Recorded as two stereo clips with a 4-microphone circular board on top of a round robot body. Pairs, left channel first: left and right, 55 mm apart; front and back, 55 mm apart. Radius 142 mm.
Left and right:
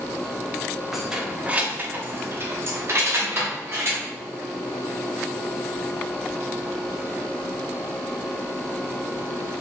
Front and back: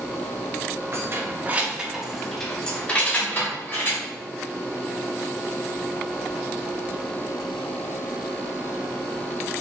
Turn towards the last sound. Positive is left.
turn(degrees=-50)